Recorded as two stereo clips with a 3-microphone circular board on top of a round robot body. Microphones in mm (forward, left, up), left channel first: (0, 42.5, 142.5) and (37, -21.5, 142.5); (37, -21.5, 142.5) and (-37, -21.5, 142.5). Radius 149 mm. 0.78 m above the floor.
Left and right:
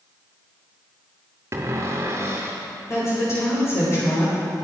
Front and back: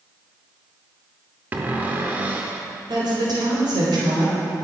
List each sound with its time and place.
1.5 s a cupboard door: 115° right, 0.5 m
2.9 s a woman speaking: 170° left, 3.5 m